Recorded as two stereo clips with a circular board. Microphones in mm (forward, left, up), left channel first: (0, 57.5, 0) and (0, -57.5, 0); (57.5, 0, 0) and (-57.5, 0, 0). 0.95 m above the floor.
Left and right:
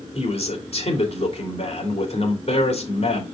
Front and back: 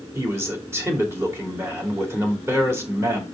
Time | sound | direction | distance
0.1 | a man speaking | 110° left | 2.5 m